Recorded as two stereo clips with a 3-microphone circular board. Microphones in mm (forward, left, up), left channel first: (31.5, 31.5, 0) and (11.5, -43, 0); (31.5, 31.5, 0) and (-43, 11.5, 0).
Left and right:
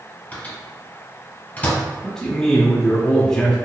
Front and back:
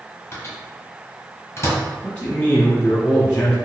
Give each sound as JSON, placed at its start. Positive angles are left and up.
{"t": 0.3, "sound": "a microwave", "azimuth_deg": 30, "distance_m": 1.4}
{"t": 2.0, "sound": "a man speaking", "azimuth_deg": 10, "distance_m": 1.0}